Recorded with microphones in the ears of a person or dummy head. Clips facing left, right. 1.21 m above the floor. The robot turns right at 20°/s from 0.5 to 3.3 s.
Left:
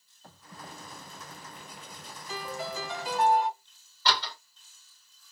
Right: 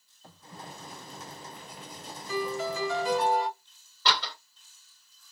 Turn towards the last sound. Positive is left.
turn(degrees=-65)  # may be behind; listen again after turning